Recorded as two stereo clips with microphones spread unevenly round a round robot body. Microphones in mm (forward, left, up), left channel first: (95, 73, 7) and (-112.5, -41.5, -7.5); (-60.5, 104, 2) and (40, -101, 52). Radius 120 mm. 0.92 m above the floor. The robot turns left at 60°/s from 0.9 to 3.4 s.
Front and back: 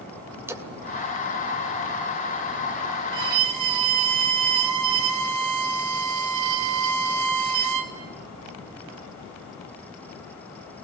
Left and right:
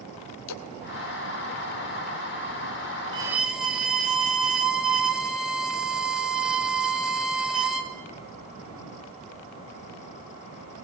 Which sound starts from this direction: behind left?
A splash, at 0.5 s.